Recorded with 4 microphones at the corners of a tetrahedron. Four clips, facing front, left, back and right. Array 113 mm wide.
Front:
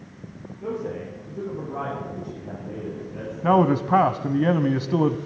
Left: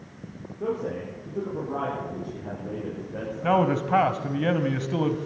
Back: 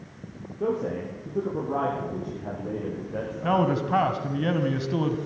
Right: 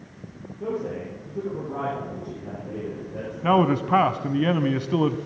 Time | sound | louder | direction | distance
0.6 | a man speaking | even, back 3 dB | 175° left | 8 m
3.4 | a man speaking | right 2 dB, front 5 dB | 15° right | 1.3 m